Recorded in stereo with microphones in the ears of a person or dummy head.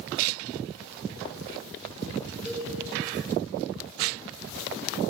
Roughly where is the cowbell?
Left.